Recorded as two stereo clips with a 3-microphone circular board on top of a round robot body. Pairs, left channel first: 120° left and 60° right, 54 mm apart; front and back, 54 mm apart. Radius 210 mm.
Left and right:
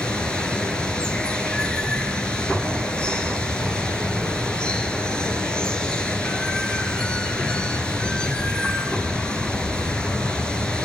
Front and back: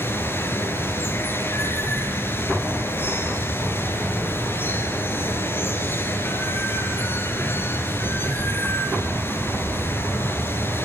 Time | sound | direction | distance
0.0 | running water | 50° left | 5 m